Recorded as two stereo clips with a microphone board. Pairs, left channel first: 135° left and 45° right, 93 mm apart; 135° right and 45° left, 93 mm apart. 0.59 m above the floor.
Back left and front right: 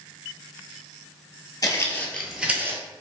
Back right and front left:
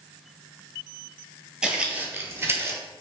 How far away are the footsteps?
About 0.7 m.